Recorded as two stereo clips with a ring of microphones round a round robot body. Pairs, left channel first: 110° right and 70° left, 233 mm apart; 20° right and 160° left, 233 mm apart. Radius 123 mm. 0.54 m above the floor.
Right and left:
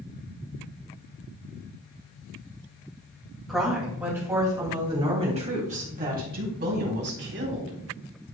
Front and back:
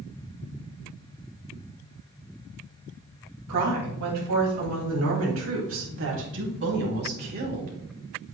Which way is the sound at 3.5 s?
155° left.